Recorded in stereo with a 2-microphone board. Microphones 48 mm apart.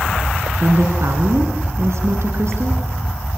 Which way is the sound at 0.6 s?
60° right (ahead or behind).